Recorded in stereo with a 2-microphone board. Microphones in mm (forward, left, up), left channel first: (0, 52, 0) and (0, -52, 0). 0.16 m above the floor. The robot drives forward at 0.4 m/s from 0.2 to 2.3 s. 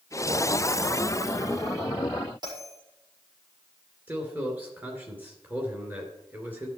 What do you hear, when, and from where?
2.4 s a bell: 40° right (ahead or behind), 6 m
4.1 s a man speaking: 15° right (ahead or behind), 3 m